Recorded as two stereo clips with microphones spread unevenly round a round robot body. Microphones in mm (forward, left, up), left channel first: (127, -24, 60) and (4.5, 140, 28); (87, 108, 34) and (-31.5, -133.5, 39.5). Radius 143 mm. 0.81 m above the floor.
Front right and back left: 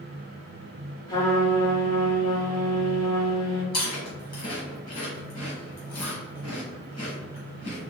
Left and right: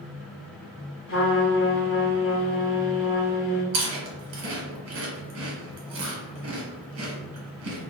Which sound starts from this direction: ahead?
A trumpet, at 1.1 s.